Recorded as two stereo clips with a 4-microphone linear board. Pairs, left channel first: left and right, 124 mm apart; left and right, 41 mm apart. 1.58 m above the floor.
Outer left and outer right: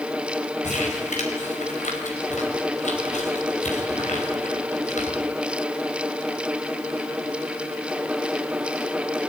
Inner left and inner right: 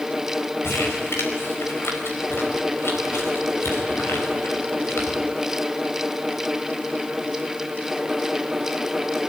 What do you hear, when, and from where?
0.6 s crumpling: 75° left (ahead or behind), 4.5 m